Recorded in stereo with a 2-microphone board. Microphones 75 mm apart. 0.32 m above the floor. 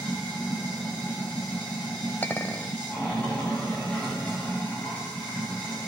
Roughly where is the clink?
Left.